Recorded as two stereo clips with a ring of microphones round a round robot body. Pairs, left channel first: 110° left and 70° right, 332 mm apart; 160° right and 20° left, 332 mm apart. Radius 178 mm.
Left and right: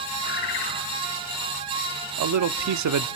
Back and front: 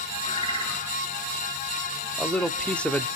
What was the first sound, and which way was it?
A bird, 125° left.